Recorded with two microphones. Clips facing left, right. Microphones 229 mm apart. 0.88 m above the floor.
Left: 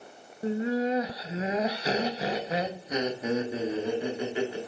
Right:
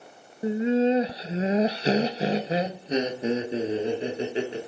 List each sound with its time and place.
0.4 s laughter: 15° right (ahead or behind), 0.6 m; by 4.6 s 25° right (ahead or behind), 2 m